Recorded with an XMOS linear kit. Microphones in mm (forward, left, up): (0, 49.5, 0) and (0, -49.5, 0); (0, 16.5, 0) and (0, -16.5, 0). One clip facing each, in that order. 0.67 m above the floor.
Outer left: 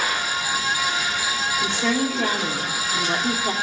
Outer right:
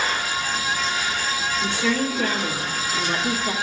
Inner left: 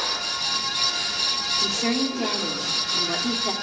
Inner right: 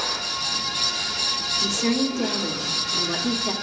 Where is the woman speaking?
25° left (ahead or behind), 1.6 m.